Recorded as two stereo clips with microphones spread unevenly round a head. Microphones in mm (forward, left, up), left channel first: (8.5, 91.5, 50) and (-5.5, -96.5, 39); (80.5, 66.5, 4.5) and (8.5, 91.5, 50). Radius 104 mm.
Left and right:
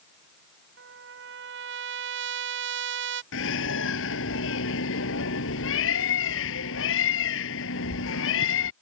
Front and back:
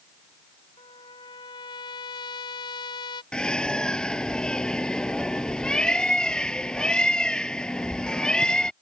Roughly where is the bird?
Ahead left.